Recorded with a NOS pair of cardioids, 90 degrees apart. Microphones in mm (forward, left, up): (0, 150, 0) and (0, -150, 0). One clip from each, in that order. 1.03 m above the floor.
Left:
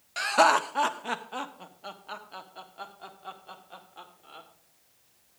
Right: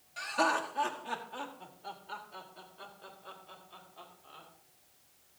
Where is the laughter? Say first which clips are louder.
Left 9 dB; 70° left, 0.7 m; by 4.5 s 75° left, 3 m.